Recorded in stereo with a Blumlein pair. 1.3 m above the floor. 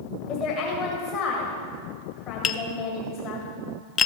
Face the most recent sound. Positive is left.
turn(degrees=25)